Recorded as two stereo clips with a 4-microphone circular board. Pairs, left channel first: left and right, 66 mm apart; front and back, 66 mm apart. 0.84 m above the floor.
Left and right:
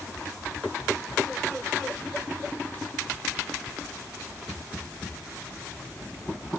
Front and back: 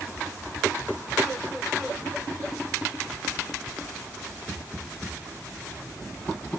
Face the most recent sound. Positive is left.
No sound to turn to.